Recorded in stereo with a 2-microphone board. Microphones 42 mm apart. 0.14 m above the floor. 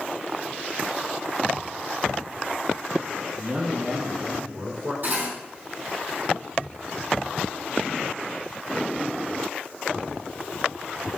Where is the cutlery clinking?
45° right (ahead or behind), 3.5 m.